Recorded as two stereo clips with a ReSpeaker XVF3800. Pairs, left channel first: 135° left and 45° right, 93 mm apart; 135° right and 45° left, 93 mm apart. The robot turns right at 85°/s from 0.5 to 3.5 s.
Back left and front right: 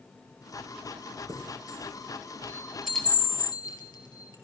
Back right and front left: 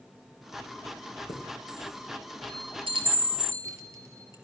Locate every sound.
1.3 s a chime: 90° right, 3.5 m; by 4.3 s 100° left, 3.5 m